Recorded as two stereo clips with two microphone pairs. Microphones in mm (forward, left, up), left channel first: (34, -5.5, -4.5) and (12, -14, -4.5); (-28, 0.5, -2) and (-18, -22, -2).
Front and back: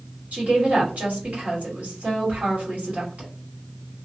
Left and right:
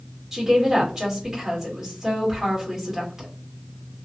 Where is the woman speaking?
140° right, 2.5 m.